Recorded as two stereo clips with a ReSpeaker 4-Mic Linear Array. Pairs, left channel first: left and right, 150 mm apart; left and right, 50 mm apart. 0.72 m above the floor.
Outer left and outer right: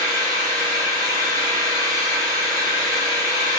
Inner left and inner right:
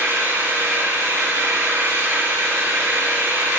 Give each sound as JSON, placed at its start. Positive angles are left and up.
{"t": 0.0, "sound": "an engine running", "side_deg": -70, "distance_m": 3.0}